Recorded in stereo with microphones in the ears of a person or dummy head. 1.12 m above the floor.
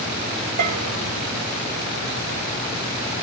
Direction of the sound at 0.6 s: 50° right (ahead or behind).